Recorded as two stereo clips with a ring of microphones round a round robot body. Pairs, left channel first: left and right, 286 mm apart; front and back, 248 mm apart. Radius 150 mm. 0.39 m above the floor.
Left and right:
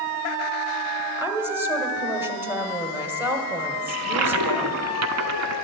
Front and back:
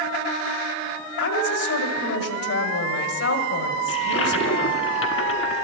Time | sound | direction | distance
1.2 | a woman speaking | 10° right | 1.7 m
3.9 | a toilet flushing | 50° right | 0.8 m